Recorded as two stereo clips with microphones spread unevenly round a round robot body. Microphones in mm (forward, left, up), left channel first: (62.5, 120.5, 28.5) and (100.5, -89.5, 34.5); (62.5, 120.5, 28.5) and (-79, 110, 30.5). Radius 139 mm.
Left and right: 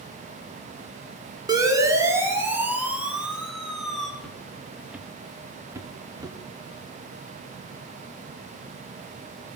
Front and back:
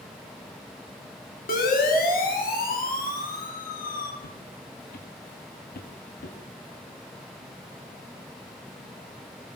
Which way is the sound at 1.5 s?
5° right.